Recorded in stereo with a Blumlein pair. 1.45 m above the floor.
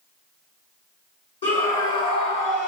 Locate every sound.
1.4 s a scream: 65° left, 4 m; by 2.7 s 60° left, 5 m